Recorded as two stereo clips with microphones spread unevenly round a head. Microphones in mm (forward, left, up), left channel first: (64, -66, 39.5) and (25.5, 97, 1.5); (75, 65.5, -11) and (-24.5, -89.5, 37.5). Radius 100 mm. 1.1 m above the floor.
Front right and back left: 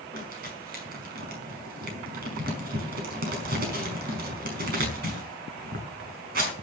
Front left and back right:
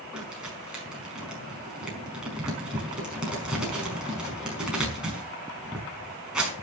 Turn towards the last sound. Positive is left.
turn(degrees=155)